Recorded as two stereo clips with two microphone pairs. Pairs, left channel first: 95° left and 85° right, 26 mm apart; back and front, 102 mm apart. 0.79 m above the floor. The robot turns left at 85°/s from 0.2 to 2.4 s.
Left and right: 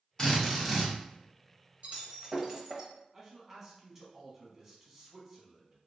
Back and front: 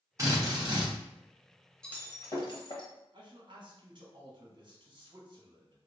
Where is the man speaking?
15° right, 1.2 m.